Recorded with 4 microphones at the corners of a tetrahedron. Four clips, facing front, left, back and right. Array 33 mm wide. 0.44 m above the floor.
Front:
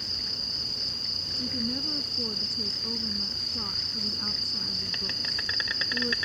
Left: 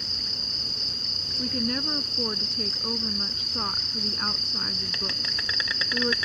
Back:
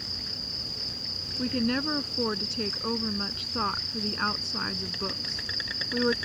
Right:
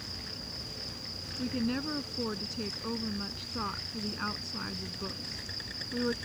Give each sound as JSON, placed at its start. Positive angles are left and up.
{"t": 0.0, "sound": "an insect", "azimuth_deg": 65}
{"t": 1.4, "sound": "a woman speaking", "azimuth_deg": 170}